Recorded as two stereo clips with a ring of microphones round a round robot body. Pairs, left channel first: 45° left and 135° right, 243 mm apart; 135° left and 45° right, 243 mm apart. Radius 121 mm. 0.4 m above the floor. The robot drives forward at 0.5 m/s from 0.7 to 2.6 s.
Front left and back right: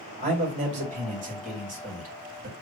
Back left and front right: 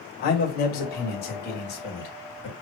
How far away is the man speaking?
About 2 m.